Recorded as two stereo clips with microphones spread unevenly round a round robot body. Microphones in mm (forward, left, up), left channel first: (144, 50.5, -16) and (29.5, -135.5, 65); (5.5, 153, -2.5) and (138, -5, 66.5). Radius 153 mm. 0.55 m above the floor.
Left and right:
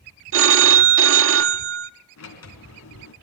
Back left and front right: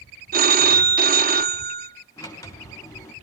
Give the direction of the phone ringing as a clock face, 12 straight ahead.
3 o'clock.